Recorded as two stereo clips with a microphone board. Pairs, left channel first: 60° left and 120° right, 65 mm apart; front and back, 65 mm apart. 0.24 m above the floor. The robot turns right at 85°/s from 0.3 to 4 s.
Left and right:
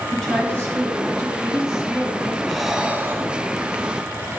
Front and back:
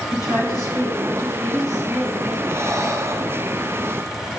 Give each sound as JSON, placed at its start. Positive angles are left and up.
{"t": 0.1, "sound": "a woman speaking", "azimuth_deg": -25, "distance_m": 3.5}
{"t": 2.5, "sound": "breathing", "azimuth_deg": 140, "distance_m": 1.0}